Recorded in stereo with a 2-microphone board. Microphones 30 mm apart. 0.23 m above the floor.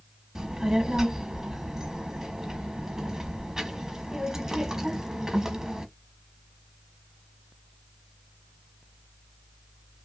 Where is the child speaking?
20° right (ahead or behind), 1.0 m.